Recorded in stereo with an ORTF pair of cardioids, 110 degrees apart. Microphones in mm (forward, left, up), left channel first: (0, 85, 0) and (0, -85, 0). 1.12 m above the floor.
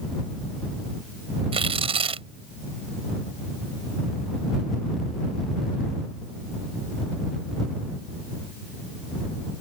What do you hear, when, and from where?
1.5 s tearing paper: 35° right